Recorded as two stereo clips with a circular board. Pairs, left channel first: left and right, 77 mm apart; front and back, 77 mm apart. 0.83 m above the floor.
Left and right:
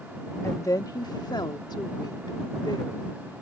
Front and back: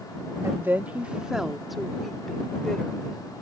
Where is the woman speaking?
135° left; by 3.1 s 80° left.